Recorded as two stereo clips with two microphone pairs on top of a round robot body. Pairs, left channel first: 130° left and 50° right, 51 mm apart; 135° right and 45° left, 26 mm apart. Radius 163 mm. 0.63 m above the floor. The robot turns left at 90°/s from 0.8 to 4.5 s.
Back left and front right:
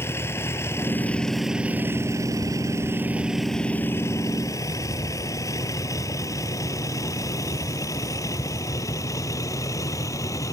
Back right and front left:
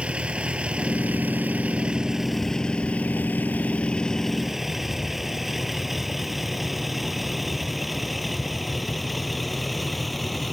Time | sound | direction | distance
0.0 | a vehicle | 90° left | ?